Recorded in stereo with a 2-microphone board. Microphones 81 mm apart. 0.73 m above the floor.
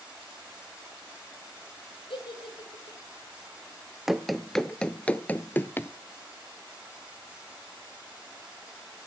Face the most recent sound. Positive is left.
turn(degrees=25)  # may be behind; listen again after turning